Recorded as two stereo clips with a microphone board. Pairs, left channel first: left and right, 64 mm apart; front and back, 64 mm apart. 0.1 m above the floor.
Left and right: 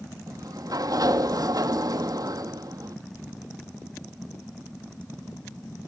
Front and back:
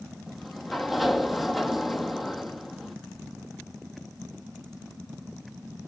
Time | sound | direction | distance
0.3 | a sliding door | 90° right | 0.7 m